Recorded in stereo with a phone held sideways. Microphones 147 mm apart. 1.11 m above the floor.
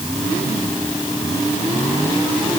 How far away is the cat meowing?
I don't hear a cat meowing.